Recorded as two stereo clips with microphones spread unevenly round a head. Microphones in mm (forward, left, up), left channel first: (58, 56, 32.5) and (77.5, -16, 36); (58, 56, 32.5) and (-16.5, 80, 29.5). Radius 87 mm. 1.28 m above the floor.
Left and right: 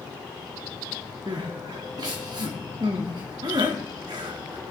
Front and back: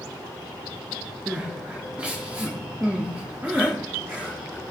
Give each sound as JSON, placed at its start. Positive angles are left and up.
{"t": 1.3, "sound": "crying", "azimuth_deg": -115, "distance_m": 1.0}